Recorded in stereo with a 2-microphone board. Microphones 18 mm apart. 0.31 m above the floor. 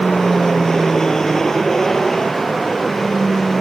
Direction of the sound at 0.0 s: 25° left (ahead or behind).